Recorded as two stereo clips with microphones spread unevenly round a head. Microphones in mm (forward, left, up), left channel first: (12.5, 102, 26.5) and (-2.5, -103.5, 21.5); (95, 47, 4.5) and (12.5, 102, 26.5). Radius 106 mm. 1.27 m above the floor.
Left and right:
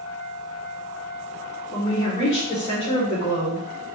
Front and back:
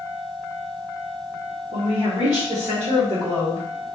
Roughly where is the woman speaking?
Behind.